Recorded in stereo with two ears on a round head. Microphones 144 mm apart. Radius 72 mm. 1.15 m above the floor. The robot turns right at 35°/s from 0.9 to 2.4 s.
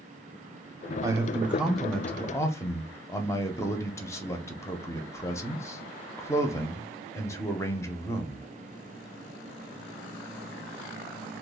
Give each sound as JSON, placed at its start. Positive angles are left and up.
{"t": 1.0, "sound": "a man speaking", "azimuth_deg": -25, "distance_m": 0.5}